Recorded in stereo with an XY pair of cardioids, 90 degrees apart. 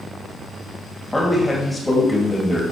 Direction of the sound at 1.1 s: 15° left.